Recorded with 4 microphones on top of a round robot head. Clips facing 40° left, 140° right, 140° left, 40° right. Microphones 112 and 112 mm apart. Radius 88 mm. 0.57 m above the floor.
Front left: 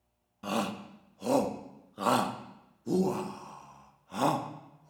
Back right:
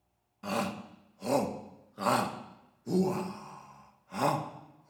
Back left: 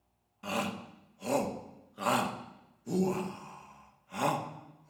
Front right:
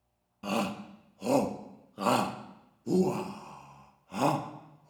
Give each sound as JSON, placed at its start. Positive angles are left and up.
{"t": 0.4, "sound": "a shout", "azimuth_deg": -25, "distance_m": 1.1}